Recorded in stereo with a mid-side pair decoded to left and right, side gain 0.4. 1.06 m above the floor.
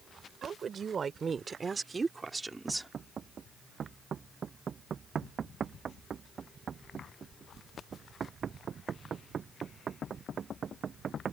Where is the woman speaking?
55° right; by 2.9 s 15° right.